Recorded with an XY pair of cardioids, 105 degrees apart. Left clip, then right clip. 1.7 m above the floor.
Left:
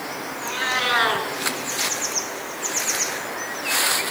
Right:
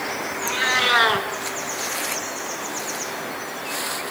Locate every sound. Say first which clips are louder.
0.4 s a cat meowing: right 3 dB; 15° right, 7 m